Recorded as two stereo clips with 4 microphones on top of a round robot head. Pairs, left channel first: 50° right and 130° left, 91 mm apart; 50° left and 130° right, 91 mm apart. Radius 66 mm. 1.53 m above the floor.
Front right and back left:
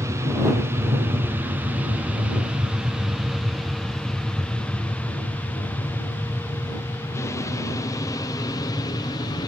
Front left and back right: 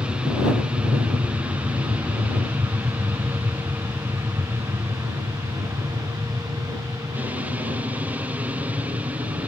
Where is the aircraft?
160° left; by 9.5 s 60° right.